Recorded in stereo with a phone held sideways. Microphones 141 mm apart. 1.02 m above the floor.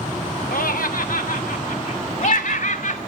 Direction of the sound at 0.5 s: 80° left.